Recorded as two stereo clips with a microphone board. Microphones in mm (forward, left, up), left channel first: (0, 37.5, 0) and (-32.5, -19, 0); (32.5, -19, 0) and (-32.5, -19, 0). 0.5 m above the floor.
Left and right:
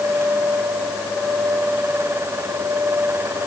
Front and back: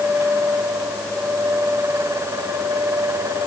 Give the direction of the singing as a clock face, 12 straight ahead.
I don't hear singing.